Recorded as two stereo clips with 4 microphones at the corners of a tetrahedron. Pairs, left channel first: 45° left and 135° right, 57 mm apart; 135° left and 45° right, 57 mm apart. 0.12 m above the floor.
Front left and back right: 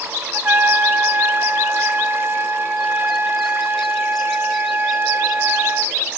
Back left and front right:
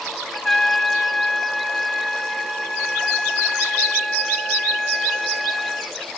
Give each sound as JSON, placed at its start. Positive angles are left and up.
{"t": 0.3, "sound": "a trumpet", "azimuth_deg": -145, "distance_m": 1.2}